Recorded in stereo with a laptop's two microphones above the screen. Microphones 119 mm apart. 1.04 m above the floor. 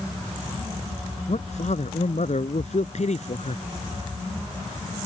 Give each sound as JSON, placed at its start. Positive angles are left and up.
{"t": 1.3, "sound": "a man speaking", "side_deg": 65}